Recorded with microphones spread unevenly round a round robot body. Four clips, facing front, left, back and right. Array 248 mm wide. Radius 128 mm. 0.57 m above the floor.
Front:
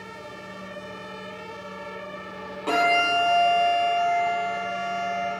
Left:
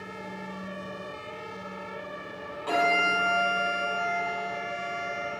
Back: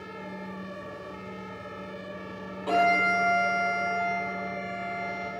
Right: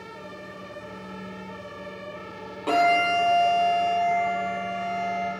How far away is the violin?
About 6 m.